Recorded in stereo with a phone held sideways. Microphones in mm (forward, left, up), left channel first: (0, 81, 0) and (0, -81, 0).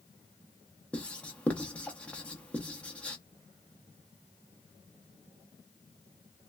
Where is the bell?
No bell in this recording.